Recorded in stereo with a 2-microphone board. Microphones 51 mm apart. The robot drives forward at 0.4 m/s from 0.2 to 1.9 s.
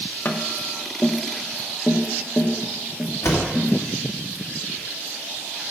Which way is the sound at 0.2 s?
45° left (ahead or behind).